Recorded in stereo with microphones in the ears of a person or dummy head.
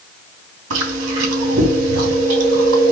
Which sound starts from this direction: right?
Chewing, at 0.7 s.